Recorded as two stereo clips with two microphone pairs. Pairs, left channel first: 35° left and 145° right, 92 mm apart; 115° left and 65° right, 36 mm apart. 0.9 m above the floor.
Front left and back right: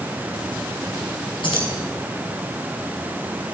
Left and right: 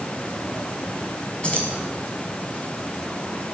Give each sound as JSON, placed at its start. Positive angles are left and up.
{"t": 1.4, "sound": "keys jangling", "azimuth_deg": 60, "distance_m": 5.5}